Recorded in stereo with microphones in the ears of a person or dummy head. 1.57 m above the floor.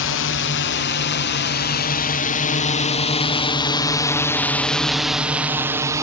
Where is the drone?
60° left (ahead or behind); by 6.0 s 15° right (ahead or behind).